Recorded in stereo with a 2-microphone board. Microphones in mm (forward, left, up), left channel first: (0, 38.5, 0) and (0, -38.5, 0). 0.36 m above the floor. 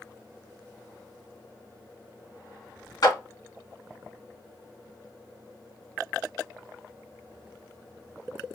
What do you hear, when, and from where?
3.0 s a clap: 55° left (ahead or behind), 1.6 m